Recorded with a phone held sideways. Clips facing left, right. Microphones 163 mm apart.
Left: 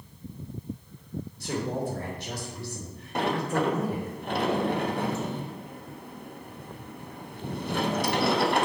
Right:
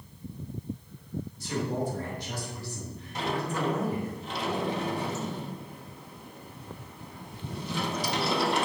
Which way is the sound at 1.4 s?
70° left (ahead or behind).